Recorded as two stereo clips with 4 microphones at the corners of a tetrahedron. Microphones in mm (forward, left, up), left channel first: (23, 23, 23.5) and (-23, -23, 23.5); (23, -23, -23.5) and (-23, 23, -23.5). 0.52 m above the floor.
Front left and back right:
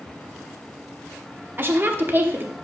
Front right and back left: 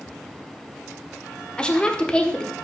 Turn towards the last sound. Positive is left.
turn(degrees=-110)